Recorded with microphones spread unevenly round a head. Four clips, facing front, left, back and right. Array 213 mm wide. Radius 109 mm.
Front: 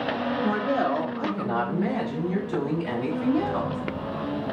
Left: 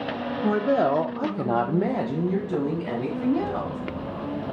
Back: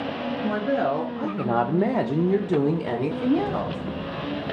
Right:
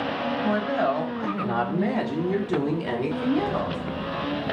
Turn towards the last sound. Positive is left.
turn(degrees=175)